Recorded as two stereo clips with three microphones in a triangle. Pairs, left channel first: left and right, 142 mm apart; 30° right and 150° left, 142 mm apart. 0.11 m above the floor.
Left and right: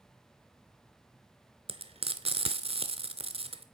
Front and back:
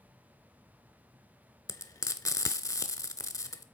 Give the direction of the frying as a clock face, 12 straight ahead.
3 o'clock.